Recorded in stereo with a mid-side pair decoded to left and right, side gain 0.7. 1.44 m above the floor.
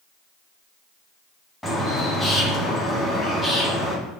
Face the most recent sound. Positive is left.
turn(degrees=10)